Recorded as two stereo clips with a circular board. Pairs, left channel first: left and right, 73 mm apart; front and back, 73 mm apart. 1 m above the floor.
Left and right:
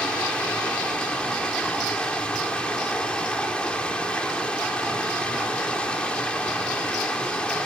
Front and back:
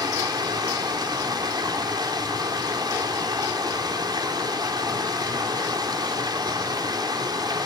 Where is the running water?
165° left, 3 m.